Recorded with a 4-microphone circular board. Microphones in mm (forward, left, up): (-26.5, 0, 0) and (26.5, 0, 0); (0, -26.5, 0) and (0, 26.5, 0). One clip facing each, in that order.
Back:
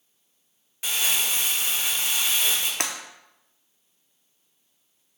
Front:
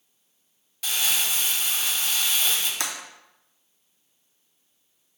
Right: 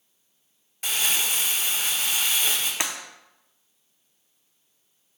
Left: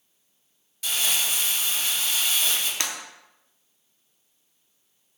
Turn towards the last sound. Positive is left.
turn(degrees=-160)